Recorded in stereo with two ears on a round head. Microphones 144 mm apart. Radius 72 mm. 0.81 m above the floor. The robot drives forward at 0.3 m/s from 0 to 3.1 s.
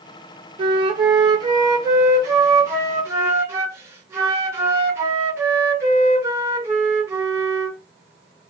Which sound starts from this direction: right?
A flute, at 0.6 s.